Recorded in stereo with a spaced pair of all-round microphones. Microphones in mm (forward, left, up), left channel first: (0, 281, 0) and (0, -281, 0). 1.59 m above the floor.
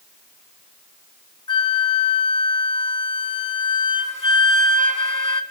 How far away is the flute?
About 0.9 m.